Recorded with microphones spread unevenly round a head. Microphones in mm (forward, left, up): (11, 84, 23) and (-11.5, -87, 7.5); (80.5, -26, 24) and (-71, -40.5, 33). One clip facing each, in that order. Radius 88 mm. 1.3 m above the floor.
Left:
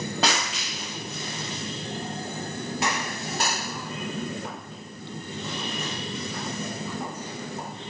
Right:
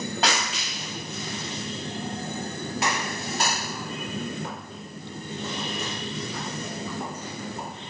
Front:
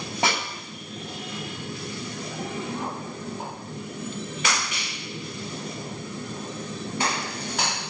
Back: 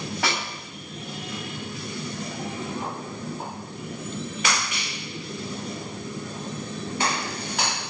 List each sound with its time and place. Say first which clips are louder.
0.2 s a snare drum: even, front 3 dB; 80° left, 9 m